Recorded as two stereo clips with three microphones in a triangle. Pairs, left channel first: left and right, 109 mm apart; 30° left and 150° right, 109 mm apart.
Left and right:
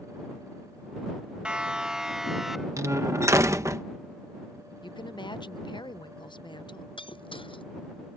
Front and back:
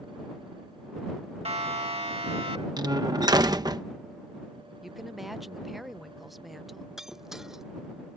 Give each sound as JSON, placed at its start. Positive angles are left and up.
{"t": 1.4, "sound": "a siren", "azimuth_deg": -170}
{"t": 2.8, "sound": "a door slam", "azimuth_deg": -135}
{"t": 4.8, "sound": "a woman speaking", "azimuth_deg": 120}
{"t": 7.0, "sound": "breaking glass", "azimuth_deg": 125}